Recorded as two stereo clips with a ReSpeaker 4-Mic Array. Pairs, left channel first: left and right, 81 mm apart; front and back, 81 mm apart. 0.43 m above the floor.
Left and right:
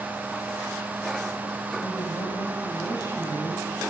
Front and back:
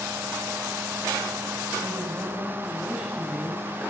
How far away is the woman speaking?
About 2 m.